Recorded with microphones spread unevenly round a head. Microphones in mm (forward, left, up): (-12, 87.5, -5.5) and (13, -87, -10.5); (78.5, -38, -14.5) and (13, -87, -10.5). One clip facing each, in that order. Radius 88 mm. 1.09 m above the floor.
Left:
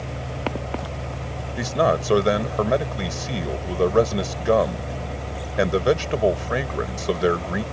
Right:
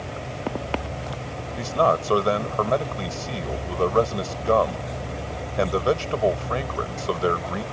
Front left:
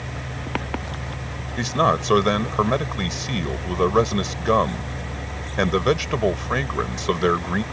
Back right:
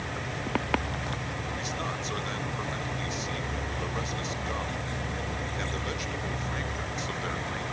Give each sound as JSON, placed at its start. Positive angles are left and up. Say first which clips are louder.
{"t": 1.6, "sound": "a man speaking", "louder": "left 1 dB, front left 19 dB", "azimuth_deg": 30}